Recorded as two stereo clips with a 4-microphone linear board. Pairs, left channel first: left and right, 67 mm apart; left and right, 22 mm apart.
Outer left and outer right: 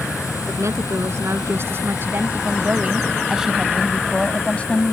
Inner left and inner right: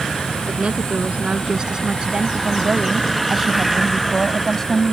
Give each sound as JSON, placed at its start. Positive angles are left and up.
{"t": 0.5, "sound": "a woman speaking", "side_deg": -50}